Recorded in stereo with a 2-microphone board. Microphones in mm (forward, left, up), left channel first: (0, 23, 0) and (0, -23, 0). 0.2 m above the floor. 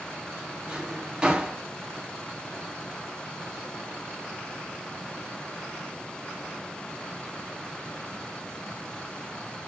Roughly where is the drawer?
Right.